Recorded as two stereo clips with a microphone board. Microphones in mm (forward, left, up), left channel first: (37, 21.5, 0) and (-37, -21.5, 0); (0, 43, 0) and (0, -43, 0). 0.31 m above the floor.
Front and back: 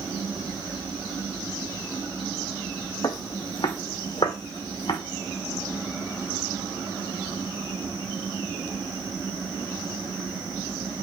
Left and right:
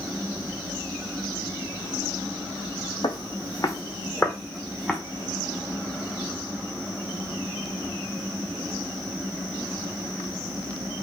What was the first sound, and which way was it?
Footsteps, 70° left.